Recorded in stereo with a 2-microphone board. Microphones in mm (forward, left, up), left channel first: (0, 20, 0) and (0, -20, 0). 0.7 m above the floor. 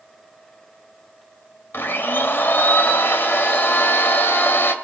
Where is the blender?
65° left (ahead or behind), 1.4 m.